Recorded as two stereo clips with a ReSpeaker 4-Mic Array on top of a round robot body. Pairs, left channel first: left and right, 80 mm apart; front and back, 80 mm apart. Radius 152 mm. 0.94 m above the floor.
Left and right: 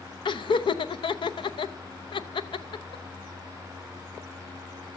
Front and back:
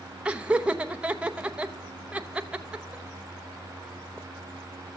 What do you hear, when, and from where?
0.2 s laughter: 105° left, 0.8 m